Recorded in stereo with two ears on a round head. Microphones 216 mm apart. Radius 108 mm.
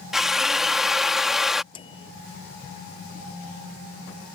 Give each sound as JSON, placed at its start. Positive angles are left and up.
{"t": 0.1, "sound": "a drill", "side_deg": 0}
{"t": 1.7, "sound": "a microwave", "side_deg": 25}